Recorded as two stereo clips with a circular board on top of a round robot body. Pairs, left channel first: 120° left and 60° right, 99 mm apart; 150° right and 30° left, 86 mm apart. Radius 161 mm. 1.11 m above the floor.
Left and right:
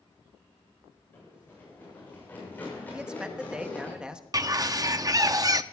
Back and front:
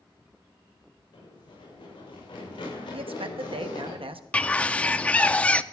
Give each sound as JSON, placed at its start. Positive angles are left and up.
{"t": 1.1, "sound": "running footsteps", "azimuth_deg": -170, "distance_m": 8.5}
{"t": 2.9, "sound": "a man speaking", "azimuth_deg": 20, "distance_m": 1.0}
{"t": 4.3, "sound": "a bird", "azimuth_deg": -80, "distance_m": 0.7}